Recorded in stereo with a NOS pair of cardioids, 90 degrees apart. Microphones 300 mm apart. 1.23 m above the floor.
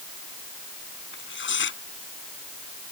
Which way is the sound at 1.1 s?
40° left.